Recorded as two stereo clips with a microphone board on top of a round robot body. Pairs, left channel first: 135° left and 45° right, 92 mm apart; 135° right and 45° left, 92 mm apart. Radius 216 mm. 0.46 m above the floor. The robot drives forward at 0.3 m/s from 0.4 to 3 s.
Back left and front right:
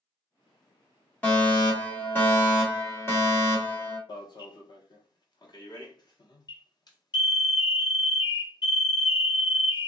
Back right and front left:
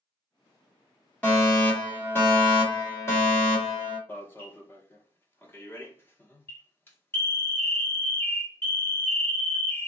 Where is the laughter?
No laughter in this recording.